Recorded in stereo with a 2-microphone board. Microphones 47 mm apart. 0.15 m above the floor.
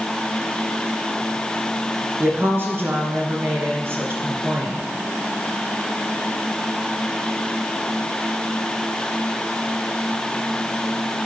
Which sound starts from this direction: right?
A woman speaking, at 2.2 s.